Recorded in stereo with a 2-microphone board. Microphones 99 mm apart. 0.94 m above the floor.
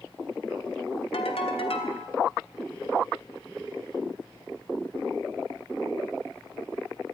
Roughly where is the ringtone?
Left.